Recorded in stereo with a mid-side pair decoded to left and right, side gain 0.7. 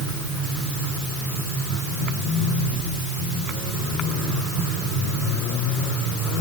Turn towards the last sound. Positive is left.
No sound to turn to.